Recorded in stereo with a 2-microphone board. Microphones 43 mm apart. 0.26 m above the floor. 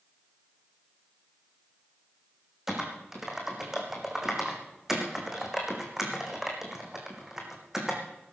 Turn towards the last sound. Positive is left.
turn(degrees=-10)  # may be behind; listen again after turning